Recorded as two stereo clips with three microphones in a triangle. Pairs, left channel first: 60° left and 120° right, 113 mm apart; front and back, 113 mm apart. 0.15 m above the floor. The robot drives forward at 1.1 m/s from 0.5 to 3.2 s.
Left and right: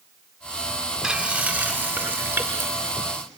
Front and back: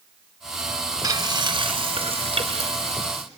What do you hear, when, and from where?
1.0 s frying: 165° left, 1.6 m; by 3.2 s 175° left, 3.5 m